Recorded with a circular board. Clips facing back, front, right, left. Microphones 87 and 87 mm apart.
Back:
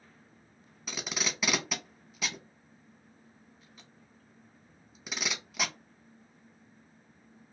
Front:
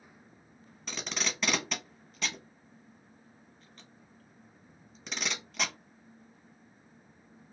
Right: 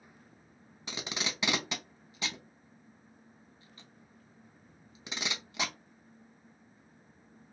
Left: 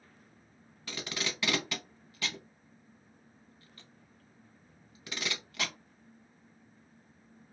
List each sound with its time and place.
0.9 s tape being pulled: 100° right, 0.7 m